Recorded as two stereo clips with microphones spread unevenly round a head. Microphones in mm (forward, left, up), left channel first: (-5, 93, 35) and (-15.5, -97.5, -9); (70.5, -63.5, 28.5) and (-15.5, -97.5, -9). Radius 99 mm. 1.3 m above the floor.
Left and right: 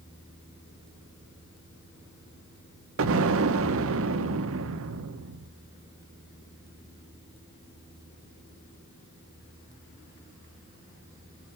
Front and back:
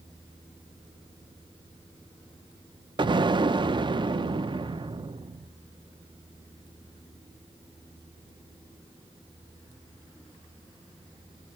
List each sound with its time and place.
3.0 s an explosion: 115° right, 0.7 m